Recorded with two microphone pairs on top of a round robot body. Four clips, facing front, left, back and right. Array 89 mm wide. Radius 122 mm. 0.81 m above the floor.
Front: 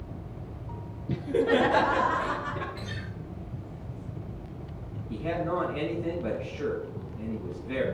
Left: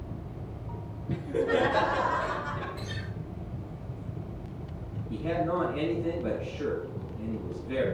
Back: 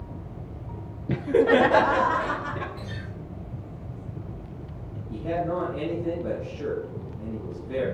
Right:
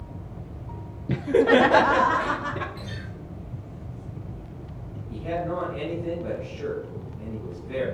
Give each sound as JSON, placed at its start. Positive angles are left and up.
{"t": 1.1, "sound": "laughter", "azimuth_deg": -140, "distance_m": 0.6}
{"t": 2.8, "sound": "a guitar", "azimuth_deg": -30, "distance_m": 7.0}
{"t": 5.1, "sound": "a man speaking", "azimuth_deg": -5, "distance_m": 5.5}